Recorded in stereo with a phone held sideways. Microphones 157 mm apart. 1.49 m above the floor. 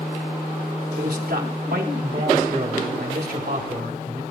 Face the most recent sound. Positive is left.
turn(degrees=-90)